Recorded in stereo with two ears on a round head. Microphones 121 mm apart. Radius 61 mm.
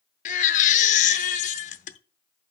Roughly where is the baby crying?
Left.